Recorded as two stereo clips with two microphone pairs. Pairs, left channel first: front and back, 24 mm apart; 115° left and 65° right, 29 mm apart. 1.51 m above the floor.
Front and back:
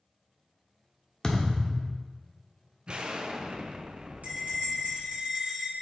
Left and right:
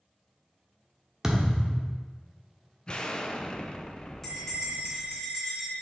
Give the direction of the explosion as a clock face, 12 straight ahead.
7 o'clock.